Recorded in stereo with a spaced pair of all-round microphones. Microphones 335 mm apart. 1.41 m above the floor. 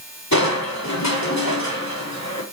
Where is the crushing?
55° left (ahead or behind), 4 m.